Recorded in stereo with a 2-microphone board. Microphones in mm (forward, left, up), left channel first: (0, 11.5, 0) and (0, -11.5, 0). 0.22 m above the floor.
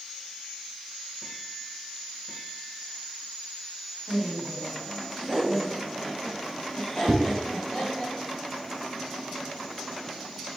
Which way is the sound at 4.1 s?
45° right (ahead or behind).